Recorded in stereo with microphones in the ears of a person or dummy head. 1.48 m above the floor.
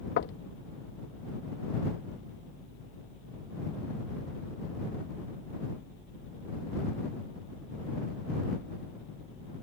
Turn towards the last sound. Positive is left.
turn(degrees=60)  # may be behind; listen again after turning